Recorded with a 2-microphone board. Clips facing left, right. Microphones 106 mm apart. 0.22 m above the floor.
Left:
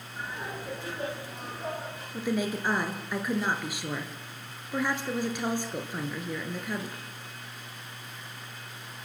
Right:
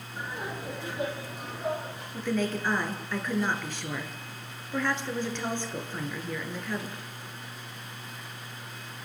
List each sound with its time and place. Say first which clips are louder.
0.2 s laughter: right 1 dB; 20° right (ahead or behind), 8.5 m; by 2.0 s 5° right (ahead or behind), 9 m
2.1 s a woman speaking: even; 10° left (ahead or behind), 3 m